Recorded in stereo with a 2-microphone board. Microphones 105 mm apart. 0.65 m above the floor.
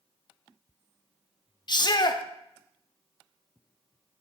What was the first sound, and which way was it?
A shout, 40° left (ahead or behind).